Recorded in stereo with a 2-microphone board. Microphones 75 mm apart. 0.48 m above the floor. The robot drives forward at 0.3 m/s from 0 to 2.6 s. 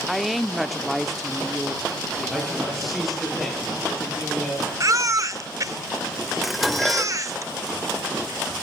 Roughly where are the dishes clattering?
Centre.